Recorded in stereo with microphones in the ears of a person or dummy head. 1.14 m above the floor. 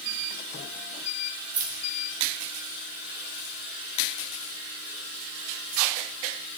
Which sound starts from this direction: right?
Keys jangling, at 1.5 s.